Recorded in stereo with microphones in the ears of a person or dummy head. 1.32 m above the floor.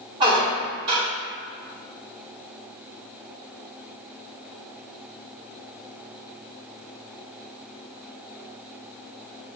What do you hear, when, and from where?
0.2 s a squeak: 30° right (ahead or behind), 1.3 m